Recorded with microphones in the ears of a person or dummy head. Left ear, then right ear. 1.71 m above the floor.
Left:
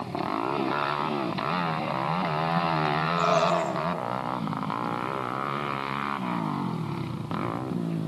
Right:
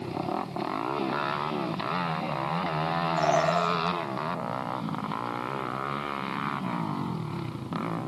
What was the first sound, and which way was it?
A bird, 70° right (ahead or behind).